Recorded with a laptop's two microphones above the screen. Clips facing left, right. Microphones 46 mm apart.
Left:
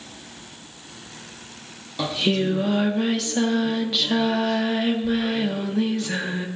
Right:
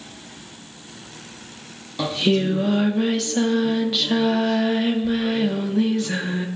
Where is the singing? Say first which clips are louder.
Right 2 dB; centre (ahead or behind), 1.5 m.